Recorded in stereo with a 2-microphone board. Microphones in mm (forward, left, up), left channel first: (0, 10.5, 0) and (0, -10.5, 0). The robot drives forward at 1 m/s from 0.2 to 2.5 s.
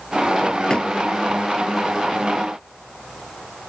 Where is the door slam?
45° left (ahead or behind); by 0.9 s 40° left (ahead or behind).